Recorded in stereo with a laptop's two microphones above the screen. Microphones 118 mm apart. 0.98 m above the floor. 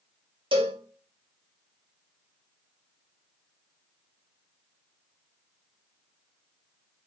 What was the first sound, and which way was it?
A cowbell, 50° right (ahead or behind).